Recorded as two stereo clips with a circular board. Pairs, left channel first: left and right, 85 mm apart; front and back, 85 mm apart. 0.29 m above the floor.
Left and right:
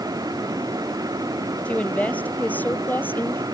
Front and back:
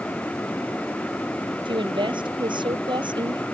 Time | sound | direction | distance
1.6 | a woman speaking | 165° left | ?